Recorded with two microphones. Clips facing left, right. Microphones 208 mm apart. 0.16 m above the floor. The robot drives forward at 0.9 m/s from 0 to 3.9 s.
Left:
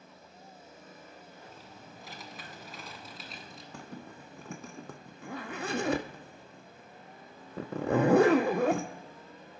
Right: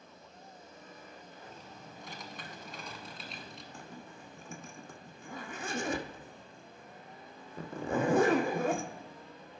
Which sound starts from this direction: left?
A zipper, at 3.7 s.